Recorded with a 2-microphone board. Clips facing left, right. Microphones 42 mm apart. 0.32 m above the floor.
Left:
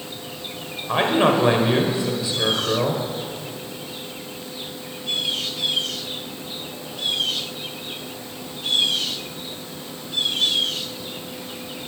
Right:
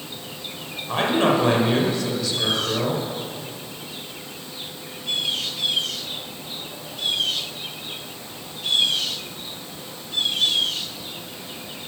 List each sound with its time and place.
0.9 s a man speaking: 20° left (ahead or behind), 1.2 m